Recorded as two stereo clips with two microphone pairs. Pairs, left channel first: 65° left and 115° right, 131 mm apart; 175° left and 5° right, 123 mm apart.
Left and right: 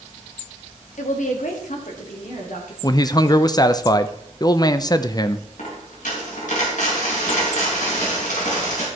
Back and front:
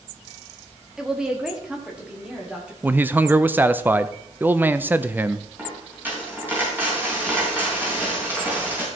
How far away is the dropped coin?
About 4 m.